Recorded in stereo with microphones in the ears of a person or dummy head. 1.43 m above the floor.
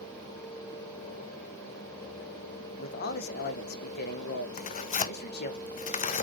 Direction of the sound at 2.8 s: 50° left (ahead or behind).